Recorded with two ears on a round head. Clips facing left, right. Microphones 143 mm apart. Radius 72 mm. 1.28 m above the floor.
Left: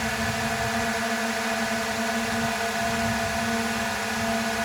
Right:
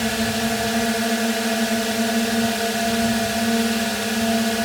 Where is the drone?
40° right (ahead or behind).